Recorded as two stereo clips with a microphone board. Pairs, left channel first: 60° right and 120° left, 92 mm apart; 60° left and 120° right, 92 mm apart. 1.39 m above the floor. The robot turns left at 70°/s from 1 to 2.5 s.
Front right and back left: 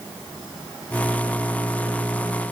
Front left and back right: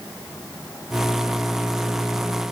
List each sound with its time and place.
Only background noise.